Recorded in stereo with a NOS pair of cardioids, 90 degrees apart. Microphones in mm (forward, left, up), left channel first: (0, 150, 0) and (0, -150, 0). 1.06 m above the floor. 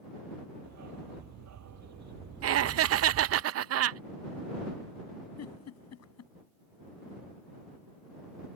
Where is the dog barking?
65° right.